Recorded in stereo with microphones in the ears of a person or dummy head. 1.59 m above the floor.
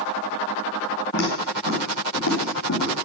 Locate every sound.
1.1 s footsteps: 70° left (ahead or behind), 4.5 m; by 3.0 s 65° left (ahead or behind), 4.5 m